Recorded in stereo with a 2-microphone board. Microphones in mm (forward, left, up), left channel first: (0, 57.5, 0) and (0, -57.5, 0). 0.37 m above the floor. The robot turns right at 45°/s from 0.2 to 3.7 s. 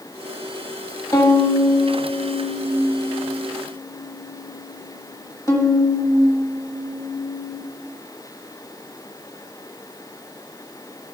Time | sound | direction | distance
1.1 | a violin | 30° left (ahead or behind) | 0.9 m